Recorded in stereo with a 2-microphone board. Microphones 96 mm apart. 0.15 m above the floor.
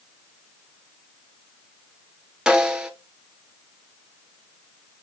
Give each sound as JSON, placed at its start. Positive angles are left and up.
{"t": 2.5, "sound": "a snare drum", "side_deg": -10, "distance_m": 1.2}